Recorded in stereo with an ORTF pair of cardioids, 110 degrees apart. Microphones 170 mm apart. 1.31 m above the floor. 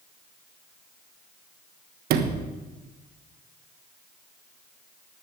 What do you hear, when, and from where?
2.1 s a sliding door: 70° right, 1.3 m